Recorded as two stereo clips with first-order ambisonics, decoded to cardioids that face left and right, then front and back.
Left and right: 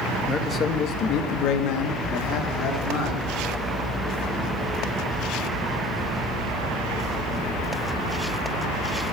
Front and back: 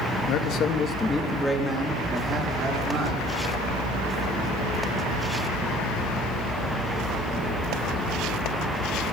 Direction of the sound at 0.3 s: 15° left.